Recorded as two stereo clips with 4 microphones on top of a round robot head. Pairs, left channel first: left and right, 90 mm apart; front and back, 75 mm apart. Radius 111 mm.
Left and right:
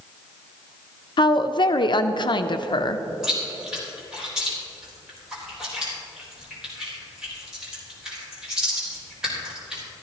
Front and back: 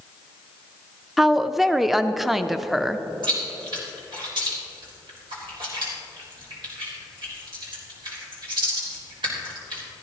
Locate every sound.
1.2 s a woman speaking: 95° left, 0.6 m
3.2 s chewing: 175° right, 3.5 m